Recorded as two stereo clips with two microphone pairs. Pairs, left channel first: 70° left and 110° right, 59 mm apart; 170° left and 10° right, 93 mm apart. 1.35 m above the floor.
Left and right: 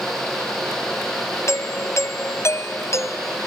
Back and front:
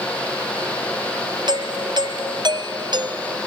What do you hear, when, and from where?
1.5 s a doorbell: 30° left